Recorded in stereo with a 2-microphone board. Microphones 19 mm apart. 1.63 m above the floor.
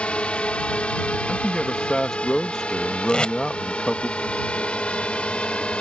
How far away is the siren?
No siren in this recording.